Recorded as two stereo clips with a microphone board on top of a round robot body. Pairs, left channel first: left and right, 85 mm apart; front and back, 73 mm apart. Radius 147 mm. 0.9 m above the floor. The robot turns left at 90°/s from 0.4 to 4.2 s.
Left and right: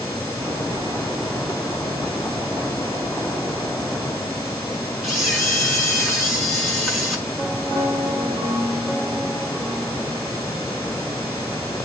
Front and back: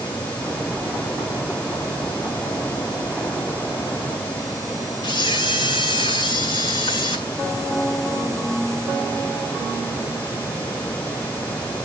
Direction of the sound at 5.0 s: 5° right.